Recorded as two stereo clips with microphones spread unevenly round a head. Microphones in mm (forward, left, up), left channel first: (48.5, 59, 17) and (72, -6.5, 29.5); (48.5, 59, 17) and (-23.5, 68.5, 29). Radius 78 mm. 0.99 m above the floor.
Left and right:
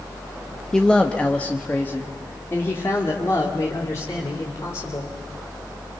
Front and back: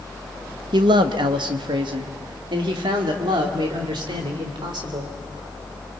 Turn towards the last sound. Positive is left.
turn(degrees=175)